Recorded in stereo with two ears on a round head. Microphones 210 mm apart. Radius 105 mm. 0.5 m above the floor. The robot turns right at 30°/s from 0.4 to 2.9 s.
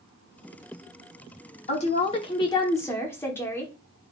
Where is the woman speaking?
125° left, 0.9 m; by 3.7 s 165° left, 0.9 m.